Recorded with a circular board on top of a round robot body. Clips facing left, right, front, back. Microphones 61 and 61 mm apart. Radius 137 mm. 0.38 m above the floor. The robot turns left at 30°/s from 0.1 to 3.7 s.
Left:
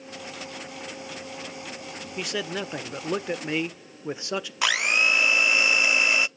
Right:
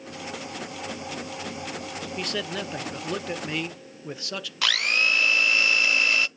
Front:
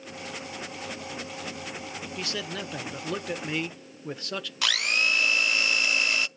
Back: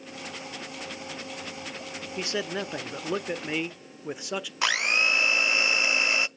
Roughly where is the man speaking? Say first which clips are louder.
Left 2 dB, back 5 dB; behind.